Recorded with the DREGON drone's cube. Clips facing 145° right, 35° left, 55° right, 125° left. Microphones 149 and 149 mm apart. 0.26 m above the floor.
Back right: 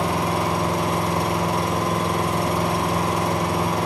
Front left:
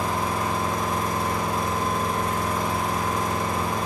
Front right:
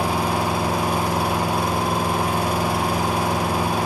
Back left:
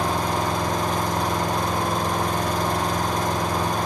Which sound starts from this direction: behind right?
An engine running, at 0.0 s.